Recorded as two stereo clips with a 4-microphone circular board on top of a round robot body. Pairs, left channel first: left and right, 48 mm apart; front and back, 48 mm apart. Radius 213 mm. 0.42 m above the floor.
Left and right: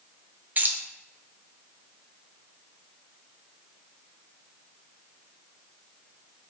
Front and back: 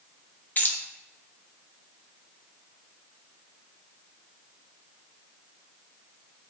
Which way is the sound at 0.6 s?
45° right.